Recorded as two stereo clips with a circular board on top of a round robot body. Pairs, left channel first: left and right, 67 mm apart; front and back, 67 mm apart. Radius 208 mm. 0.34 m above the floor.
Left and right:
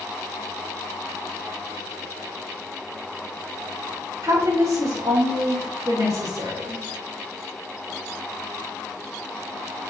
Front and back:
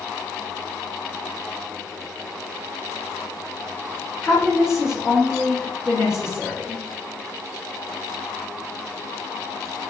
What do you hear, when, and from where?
4.2 s a woman speaking: 100° right, 2.5 m